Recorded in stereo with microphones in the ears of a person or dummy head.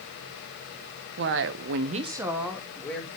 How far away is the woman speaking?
About 1.1 m.